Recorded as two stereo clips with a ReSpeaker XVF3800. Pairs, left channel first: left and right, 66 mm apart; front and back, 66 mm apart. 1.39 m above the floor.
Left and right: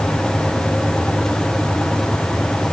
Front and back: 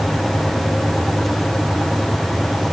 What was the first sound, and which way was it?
Only background noise.